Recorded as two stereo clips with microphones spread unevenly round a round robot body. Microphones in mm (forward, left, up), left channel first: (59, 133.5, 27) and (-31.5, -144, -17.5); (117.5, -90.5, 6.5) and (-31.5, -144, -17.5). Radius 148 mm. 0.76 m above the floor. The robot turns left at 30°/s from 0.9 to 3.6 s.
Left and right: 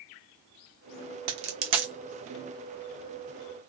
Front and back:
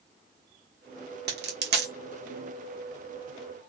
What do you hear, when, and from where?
1.3 s a dropped coin: 145° right, 0.8 m; by 1.9 s 165° right, 0.8 m